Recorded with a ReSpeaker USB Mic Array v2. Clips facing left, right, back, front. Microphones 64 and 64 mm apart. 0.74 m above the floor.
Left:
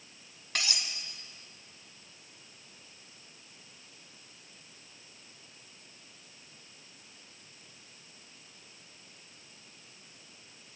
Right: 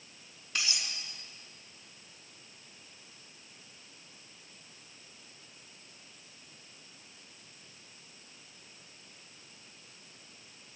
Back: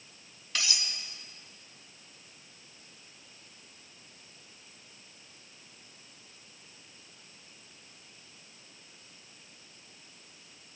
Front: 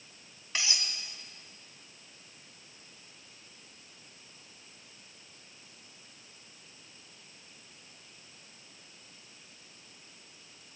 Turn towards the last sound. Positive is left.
turn(degrees=65)